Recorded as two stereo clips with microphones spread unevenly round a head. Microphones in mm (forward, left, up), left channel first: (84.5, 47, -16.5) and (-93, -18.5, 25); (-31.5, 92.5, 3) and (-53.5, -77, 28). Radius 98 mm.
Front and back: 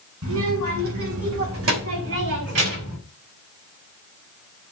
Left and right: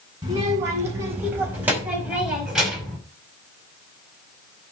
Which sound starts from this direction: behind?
A child speaking, at 0.2 s.